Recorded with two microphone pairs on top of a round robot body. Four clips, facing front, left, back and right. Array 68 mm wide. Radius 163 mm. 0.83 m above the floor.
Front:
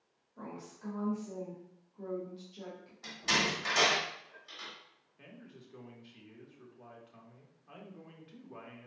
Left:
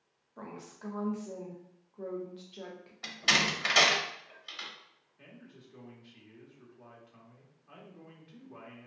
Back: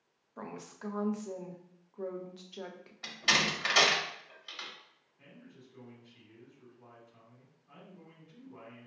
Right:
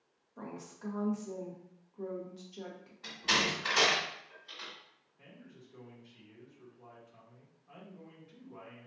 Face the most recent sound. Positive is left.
turn(degrees=15)